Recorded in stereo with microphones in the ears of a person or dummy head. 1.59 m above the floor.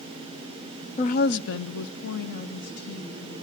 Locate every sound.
1.0 s a woman speaking: 35° left (ahead or behind), 0.7 m; by 3.4 s 55° left (ahead or behind), 3 m